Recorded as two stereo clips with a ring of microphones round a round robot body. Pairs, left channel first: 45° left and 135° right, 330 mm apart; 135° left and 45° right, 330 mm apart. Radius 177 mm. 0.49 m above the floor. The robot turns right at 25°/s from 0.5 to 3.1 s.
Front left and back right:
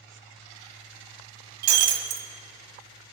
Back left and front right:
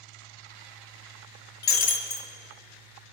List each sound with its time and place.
1.6 s breaking glass: 165° right, 1.3 m; by 2.3 s 150° right, 1.3 m